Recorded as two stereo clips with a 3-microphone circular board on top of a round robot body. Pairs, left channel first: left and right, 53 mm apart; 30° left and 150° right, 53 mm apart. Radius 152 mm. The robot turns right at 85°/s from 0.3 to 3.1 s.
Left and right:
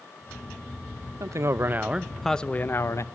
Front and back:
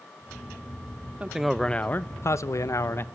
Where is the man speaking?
85° right, 1.1 m; by 3.0 s 75° left, 1.1 m.